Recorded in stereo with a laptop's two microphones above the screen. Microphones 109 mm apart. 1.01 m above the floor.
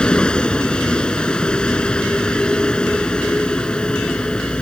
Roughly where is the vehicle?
Centre.